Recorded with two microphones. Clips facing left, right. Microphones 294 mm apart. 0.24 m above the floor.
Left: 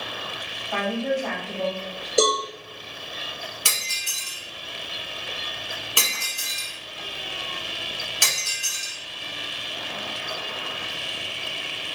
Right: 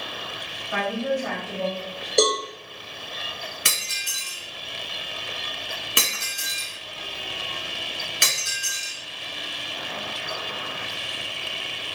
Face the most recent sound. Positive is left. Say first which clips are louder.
# right 1 dB
turn(degrees=-20)  # may be behind; listen again after turning